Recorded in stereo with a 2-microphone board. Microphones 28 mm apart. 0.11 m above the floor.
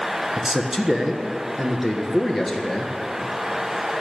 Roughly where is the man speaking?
Centre.